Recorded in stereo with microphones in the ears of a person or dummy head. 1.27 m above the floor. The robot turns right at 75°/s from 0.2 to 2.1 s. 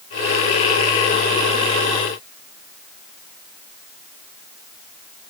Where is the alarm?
I don't hear an alarm.